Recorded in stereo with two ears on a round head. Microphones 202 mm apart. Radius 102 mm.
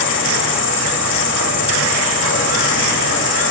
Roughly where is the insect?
Left.